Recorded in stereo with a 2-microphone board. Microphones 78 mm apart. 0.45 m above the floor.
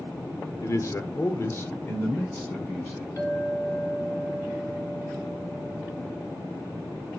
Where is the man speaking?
40° left (ahead or behind), 0.8 m; by 3.1 s 15° left (ahead or behind), 1.5 m.